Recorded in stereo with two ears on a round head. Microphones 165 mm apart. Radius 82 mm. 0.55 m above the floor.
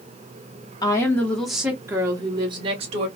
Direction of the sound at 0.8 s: 20° left (ahead or behind).